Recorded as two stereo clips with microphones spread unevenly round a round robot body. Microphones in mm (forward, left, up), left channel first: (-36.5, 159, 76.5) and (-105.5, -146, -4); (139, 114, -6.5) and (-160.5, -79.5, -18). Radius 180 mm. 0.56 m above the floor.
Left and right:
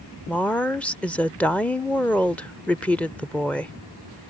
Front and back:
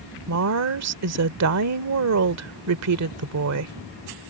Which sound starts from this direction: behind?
A woman speaking, at 0.3 s.